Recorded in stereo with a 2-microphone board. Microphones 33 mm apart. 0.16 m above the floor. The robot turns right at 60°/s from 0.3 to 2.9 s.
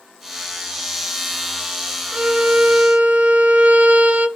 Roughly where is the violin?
Behind right.